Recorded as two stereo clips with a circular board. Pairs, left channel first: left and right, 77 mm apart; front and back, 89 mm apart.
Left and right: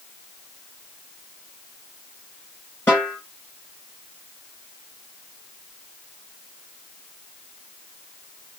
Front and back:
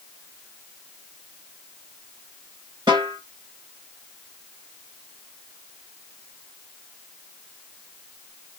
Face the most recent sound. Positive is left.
turn(degrees=150)